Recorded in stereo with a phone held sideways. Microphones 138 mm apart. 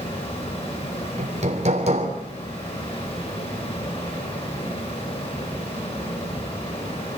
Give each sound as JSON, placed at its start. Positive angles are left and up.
{"t": 0.0, "sound": "a fan", "side_deg": 40, "distance_m": 8.0}
{"t": 1.2, "sound": "hammering", "side_deg": -55, "distance_m": 3.5}